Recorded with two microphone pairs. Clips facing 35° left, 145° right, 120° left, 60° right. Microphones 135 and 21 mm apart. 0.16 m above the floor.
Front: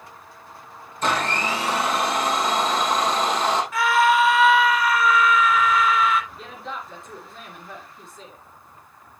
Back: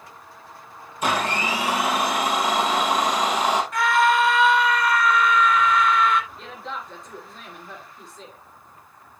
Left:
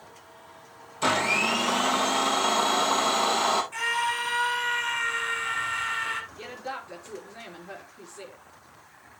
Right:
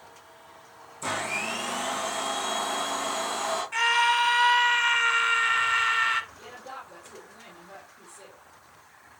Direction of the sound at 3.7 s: 55° right.